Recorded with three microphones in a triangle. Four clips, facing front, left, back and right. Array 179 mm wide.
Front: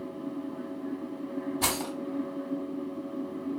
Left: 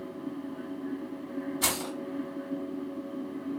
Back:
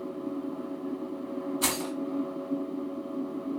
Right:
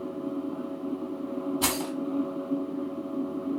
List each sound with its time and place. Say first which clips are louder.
1.6 s keys jangling: right 4 dB, even; 45° right, 1.6 m